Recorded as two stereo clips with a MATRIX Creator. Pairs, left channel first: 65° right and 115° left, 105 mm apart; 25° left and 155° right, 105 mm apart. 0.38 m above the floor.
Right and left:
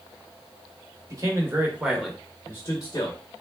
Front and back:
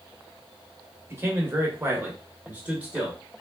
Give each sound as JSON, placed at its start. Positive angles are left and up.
{"t": 1.1, "sound": "a man speaking", "azimuth_deg": 145, "distance_m": 1.1}